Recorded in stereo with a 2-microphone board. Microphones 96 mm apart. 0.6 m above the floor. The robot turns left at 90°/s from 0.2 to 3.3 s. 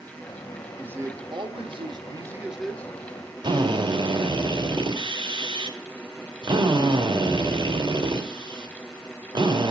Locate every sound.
0.8 s a man speaking: 15° right, 1.5 m; by 2.9 s 155° left, 1.5 m
3.4 s a drill: 55° right (ahead or behind), 2 m